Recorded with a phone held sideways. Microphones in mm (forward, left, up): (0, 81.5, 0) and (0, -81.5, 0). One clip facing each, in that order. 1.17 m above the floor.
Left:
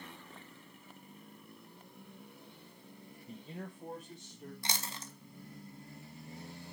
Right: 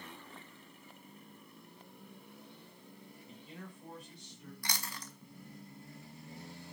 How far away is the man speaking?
About 1.0 m.